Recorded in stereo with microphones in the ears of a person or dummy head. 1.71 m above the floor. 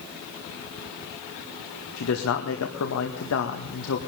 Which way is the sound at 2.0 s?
75° left (ahead or behind).